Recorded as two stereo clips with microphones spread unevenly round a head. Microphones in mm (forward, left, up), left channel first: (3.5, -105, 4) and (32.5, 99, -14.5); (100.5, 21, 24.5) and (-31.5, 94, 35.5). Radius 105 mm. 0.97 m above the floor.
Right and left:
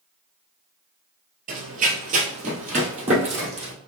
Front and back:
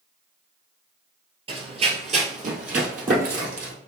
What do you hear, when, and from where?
1.5 s running footsteps: 120° left, 1.2 m; by 3.7 s 145° left, 2 m